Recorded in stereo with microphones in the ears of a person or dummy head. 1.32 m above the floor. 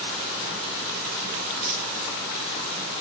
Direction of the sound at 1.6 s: 50° right (ahead or behind).